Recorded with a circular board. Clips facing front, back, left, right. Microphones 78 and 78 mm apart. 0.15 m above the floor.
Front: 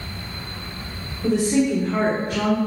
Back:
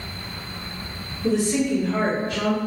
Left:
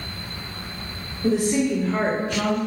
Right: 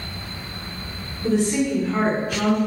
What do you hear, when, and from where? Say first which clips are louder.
1.2 s a woman speaking: front 2 dB, even; 20° left, 2.0 m; by 2.6 s 20° right, 1.7 m